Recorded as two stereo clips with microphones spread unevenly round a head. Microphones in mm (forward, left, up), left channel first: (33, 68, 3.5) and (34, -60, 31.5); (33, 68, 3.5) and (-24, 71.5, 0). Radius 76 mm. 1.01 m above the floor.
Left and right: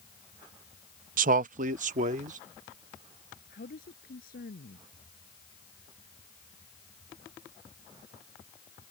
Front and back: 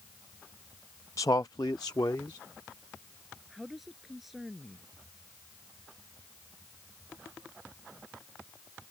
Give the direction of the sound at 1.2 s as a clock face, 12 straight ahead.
2 o'clock.